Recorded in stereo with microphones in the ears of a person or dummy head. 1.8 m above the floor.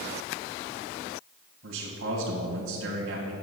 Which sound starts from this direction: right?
A man speaking, at 1.6 s.